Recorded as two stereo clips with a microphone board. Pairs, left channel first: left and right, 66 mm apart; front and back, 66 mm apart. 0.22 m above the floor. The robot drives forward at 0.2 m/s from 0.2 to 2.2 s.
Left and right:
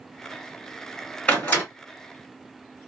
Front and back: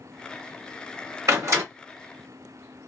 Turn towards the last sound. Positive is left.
turn(degrees=160)